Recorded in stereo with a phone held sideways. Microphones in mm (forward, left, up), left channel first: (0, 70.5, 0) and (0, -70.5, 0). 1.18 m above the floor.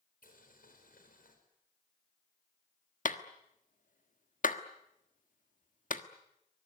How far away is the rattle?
I don't hear a rattle.